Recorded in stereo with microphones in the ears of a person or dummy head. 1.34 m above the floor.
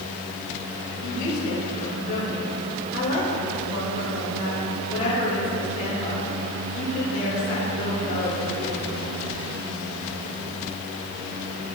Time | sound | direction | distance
1.0 | a woman speaking | 65° left (ahead or behind) | 5 m